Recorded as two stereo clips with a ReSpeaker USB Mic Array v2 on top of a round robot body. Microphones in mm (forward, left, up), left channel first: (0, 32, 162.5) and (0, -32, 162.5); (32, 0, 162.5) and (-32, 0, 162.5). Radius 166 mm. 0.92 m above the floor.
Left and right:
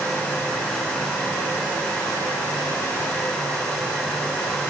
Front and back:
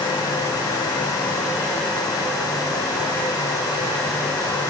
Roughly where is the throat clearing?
No throat clearing in this recording.